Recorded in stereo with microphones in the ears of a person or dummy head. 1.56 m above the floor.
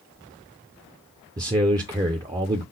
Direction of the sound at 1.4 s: 20° right (ahead or behind).